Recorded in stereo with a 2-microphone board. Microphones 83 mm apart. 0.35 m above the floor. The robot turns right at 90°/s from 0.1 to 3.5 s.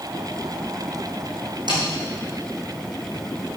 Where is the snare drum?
60° right (ahead or behind), 5.5 m; by 1.8 s 45° right (ahead or behind), 5.5 m.